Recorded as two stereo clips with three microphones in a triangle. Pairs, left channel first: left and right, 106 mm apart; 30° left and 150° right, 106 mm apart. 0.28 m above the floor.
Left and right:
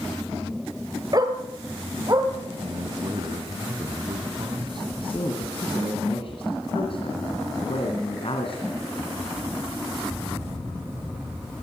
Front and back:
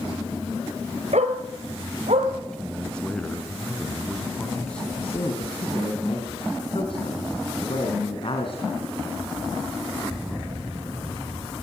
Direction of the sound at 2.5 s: 50° right.